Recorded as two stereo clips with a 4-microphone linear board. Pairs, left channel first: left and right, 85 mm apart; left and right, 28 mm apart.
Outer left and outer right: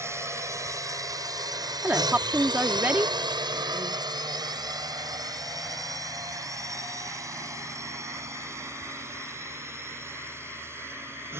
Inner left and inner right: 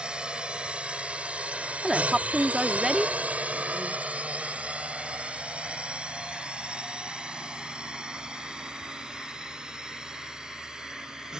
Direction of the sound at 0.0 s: 35° right (ahead or behind).